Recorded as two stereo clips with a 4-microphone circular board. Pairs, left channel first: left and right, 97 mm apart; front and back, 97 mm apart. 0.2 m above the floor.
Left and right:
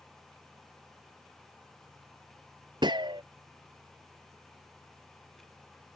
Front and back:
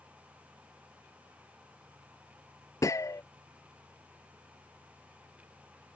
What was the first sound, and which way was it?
A gunshot, 55° right.